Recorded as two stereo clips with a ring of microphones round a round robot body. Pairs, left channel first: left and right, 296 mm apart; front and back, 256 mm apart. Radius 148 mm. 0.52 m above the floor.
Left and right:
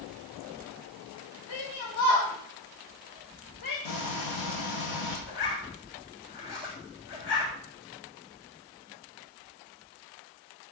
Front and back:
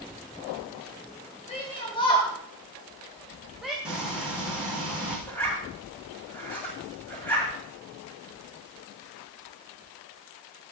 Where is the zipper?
85° left, 7.5 m.